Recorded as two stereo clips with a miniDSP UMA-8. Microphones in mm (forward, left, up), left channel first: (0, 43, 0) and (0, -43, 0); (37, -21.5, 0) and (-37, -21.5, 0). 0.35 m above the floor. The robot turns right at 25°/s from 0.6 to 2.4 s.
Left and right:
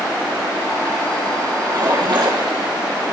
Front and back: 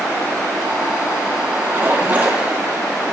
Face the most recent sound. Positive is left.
turn(degrees=-110)